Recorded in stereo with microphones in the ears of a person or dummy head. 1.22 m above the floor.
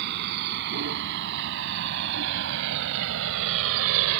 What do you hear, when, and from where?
0.0 s a vehicle: 60° right (ahead or behind); by 4.2 s 85° right